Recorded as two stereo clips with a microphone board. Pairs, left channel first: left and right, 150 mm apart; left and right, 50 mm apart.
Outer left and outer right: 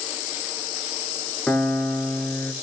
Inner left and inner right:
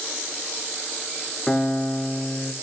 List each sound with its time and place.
1.5 s a piano: 10° left (ahead or behind), 0.8 m